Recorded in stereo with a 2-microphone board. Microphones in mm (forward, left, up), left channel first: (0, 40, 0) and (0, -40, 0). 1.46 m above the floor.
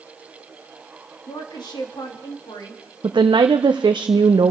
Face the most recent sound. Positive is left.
turn(degrees=-80)